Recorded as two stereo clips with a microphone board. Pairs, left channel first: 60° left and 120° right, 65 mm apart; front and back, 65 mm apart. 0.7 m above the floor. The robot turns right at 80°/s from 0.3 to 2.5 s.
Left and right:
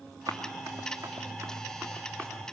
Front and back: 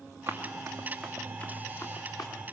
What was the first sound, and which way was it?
Running footsteps, 145° right.